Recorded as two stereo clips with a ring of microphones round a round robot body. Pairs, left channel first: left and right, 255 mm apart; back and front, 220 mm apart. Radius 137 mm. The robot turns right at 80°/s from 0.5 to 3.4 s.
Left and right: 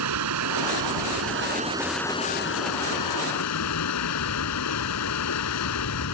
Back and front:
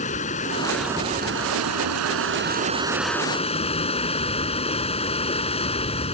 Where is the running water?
115° right; by 6.2 s 115° left.